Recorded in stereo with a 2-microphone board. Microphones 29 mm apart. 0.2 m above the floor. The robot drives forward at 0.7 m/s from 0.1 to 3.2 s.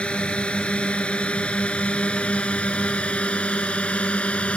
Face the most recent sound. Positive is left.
turn(degrees=45)  # may be behind; listen again after turning